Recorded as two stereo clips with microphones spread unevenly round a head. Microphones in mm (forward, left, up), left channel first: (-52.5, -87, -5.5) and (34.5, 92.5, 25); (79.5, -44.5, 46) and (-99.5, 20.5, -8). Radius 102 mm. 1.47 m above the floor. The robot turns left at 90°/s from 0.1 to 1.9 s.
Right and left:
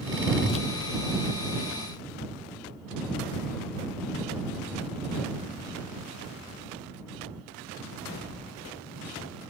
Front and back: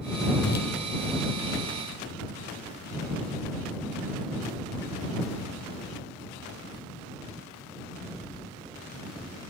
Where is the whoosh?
45° right; by 0.7 s 65° right.